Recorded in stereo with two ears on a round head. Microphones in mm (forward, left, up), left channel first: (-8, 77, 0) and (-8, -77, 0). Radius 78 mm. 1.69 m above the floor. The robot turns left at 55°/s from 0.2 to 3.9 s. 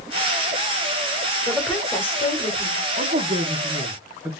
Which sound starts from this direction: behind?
A woman speaking, at 1.5 s.